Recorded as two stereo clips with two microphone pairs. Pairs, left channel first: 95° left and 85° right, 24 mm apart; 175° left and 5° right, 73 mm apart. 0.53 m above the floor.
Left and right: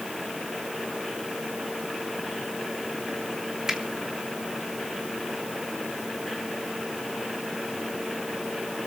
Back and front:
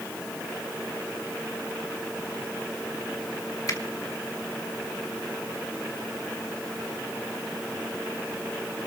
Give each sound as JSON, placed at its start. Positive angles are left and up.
{"t": 3.7, "sound": "a finger snap", "azimuth_deg": -150, "distance_m": 2.5}